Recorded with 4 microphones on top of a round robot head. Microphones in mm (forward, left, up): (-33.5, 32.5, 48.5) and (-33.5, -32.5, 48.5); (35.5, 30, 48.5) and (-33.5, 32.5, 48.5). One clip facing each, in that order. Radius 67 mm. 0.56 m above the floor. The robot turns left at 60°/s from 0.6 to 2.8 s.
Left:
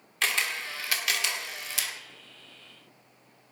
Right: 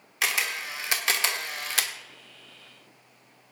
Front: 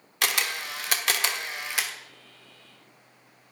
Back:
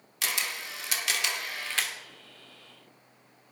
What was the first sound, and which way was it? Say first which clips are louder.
A camera shutter: right 1 dB, front 5 dB; 5° right.